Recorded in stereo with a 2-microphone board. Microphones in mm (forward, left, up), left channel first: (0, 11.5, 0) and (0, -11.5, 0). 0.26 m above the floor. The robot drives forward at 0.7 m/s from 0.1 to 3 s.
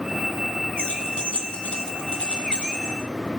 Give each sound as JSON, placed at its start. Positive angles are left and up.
{"t": 0.8, "sound": "keys jangling", "side_deg": 60, "distance_m": 1.5}